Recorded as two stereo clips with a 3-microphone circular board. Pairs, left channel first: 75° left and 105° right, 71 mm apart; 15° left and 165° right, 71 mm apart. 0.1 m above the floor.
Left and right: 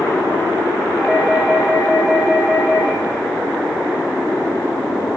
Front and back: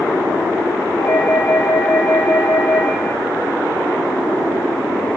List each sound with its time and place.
1.0 s a doorbell: 10° right, 5 m